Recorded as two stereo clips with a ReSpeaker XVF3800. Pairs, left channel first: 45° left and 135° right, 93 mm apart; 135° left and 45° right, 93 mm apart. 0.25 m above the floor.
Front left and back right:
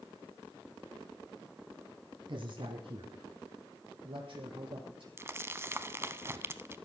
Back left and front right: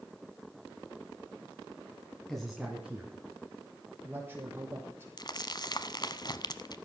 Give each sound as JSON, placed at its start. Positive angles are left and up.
{"t": 2.3, "sound": "a man speaking", "azimuth_deg": -140, "distance_m": 1.8}
{"t": 5.2, "sound": "crumpling", "azimuth_deg": 165, "distance_m": 0.9}